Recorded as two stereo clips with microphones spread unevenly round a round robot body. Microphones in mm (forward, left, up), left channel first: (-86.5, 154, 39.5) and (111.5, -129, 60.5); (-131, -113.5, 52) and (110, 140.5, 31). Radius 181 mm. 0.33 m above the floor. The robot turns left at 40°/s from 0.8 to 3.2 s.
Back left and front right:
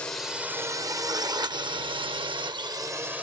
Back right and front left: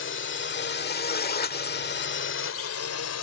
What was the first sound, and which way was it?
A drone, 155° right.